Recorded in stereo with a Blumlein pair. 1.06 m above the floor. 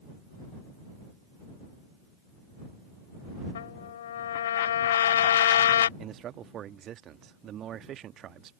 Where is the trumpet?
60° left.